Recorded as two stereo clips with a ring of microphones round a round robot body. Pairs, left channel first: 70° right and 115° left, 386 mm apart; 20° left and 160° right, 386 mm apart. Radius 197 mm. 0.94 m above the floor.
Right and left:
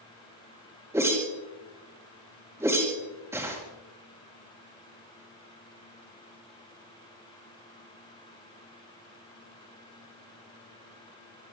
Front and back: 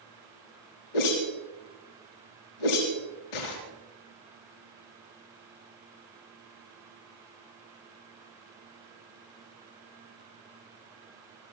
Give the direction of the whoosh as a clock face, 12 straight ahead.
11 o'clock.